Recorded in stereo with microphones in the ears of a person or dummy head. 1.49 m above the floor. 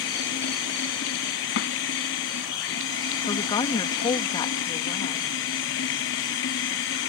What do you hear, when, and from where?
0.0 s running water: 80° left
1.6 s a snare drum: 60° left (ahead or behind)
3.2 s a woman speaking: 20° left (ahead or behind)